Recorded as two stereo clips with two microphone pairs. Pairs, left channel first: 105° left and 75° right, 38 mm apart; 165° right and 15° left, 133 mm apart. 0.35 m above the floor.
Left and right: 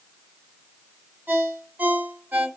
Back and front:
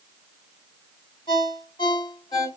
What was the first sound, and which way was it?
A ringtone, 110° right.